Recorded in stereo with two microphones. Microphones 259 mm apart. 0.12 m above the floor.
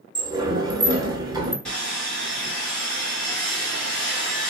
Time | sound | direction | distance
0.1 | a sliding door | 15° right (ahead or behind) | 0.8 m
1.6 | sawing | 5° left (ahead or behind) | 2 m